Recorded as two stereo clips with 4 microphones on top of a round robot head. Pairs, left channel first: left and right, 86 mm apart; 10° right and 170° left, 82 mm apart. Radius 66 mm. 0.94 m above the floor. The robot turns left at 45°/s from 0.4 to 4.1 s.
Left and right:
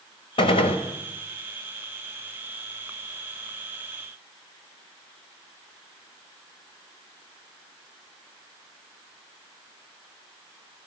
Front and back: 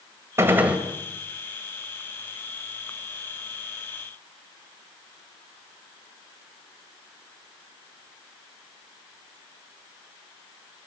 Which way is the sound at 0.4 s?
110° left.